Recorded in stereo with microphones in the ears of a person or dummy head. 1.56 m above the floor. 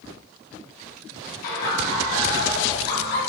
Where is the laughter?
50° left (ahead or behind), 1.8 m.